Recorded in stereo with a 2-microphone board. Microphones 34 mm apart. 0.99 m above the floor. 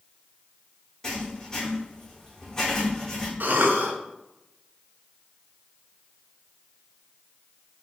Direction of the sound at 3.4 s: 65° right (ahead or behind).